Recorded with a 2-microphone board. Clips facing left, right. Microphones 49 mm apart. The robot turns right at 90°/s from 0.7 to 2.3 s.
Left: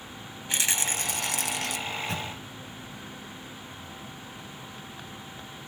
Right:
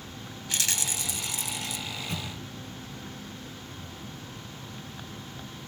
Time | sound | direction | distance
0.5 | a rattle | 25° left | 0.7 m
1.9 | a microwave | 60° left (ahead or behind) | 3.5 m